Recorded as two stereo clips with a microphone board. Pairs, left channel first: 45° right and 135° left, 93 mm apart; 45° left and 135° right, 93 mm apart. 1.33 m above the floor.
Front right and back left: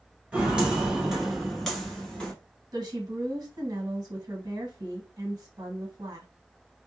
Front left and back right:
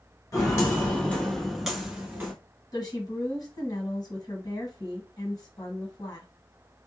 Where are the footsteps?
70° left, 1.6 m; by 2.3 s 110° right, 1.4 m.